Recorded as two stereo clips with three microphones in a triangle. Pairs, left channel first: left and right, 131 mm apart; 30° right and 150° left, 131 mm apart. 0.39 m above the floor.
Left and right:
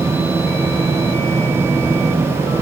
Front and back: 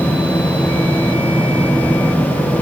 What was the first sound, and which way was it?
Only background noise.